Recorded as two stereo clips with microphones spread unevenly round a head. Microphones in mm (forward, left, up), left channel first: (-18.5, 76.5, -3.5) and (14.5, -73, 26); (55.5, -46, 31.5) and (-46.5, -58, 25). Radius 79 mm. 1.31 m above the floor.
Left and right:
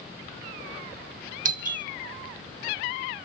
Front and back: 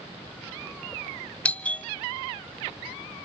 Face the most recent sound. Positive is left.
turn(degrees=-70)